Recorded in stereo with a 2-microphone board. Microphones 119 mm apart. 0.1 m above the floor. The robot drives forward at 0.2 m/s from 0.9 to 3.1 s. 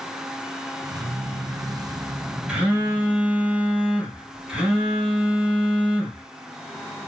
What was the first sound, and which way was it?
A phone buzzing, 10° right (ahead or behind).